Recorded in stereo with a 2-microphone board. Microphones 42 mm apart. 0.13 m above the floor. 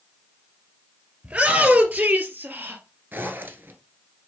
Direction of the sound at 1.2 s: 30° right (ahead or behind).